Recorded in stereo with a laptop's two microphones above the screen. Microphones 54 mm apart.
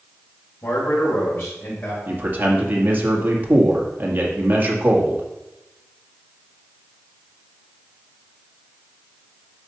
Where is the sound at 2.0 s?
35° right (ahead or behind), 2 m.